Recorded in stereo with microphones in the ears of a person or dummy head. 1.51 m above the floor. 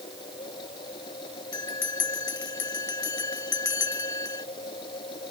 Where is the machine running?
25° left (ahead or behind).